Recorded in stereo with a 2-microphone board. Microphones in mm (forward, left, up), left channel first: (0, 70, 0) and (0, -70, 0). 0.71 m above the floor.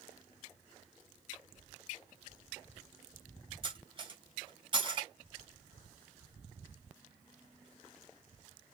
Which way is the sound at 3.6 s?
35° right (ahead or behind).